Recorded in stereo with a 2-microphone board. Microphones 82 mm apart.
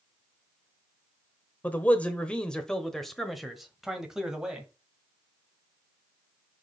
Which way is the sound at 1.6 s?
20° left (ahead or behind).